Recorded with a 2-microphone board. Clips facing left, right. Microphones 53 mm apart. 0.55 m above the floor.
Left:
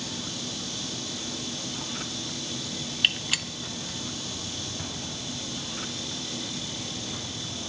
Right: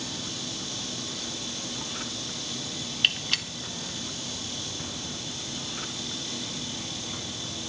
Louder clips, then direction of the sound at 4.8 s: Left 1 dB; 20° left (ahead or behind).